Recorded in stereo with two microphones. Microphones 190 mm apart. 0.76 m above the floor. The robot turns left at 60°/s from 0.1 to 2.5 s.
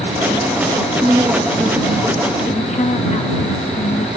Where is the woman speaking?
145° right; by 4.1 s 125° left.